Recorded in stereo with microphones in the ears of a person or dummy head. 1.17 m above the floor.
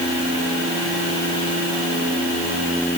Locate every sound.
Only background noise.